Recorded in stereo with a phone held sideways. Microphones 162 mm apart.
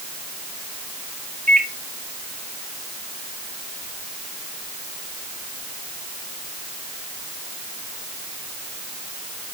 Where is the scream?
No scream in this recording.